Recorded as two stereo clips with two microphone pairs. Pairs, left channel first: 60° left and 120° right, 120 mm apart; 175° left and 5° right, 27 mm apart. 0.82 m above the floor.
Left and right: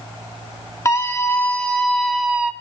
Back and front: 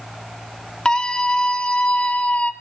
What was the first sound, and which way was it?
A scream, 120° left.